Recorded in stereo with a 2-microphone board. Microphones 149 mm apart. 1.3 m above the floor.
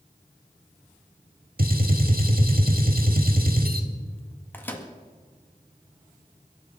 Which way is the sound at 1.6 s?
80° right.